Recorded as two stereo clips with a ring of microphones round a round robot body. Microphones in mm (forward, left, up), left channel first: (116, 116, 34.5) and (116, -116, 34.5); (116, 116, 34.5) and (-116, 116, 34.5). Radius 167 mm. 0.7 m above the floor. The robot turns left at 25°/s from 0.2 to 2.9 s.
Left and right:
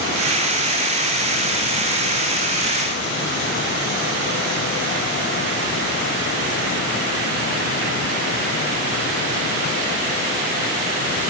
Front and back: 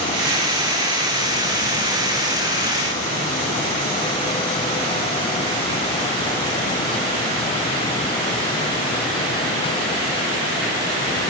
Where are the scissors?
I don't hear scissors.